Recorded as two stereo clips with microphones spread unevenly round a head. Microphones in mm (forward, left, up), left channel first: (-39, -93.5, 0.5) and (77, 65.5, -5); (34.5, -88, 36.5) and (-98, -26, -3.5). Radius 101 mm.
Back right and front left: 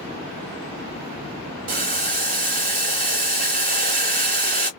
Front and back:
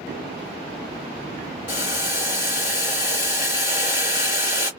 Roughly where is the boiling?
Ahead.